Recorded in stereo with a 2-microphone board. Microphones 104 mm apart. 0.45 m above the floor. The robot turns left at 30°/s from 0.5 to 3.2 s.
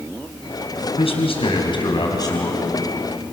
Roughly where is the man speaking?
Left.